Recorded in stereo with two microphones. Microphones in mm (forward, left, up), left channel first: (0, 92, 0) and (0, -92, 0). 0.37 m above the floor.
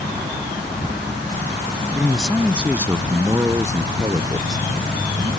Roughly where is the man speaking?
Centre.